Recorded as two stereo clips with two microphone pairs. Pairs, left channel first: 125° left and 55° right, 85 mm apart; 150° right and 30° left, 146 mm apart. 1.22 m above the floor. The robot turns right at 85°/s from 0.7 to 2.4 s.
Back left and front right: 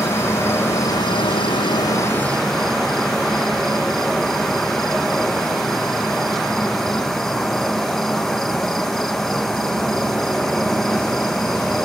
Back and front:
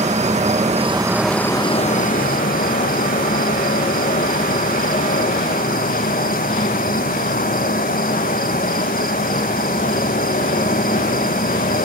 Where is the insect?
65° left, 0.7 m; by 11.8 s 150° right, 0.7 m.